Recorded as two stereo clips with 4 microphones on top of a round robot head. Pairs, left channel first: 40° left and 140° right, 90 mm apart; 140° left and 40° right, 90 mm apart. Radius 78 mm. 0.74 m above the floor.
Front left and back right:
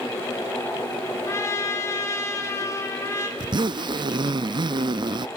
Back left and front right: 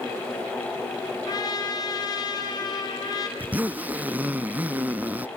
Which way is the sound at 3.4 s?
110° right.